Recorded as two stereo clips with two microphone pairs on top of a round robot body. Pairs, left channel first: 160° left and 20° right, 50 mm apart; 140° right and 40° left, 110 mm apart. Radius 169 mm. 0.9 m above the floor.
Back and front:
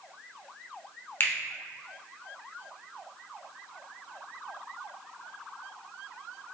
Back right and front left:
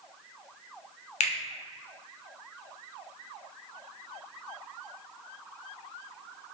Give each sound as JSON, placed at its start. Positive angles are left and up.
{"t": 1.2, "sound": "a finger snap", "azimuth_deg": -155, "distance_m": 0.6}